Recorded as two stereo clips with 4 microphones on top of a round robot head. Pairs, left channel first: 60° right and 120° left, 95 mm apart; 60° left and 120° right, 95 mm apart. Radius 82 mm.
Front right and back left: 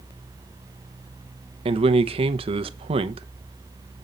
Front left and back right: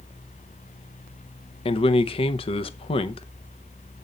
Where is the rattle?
I don't hear a rattle.